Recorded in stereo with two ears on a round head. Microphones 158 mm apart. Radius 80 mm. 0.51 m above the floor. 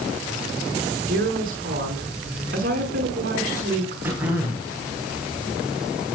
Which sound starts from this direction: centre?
Throat clearing, at 4.0 s.